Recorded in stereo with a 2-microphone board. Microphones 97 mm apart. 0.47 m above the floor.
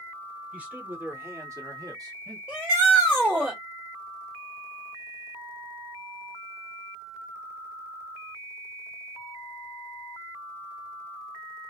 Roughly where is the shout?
Centre.